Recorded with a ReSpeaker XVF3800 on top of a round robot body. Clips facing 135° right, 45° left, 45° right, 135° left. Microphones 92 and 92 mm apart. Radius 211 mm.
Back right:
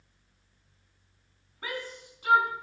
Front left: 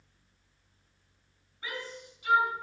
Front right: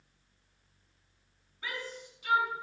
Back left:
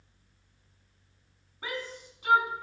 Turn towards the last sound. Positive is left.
turn(degrees=180)